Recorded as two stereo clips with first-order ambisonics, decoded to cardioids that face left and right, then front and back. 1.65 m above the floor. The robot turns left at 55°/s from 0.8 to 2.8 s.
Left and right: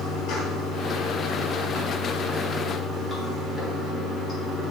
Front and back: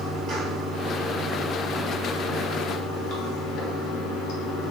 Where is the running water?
125° left, 4.5 m; by 4.7 s 15° left, 4.5 m.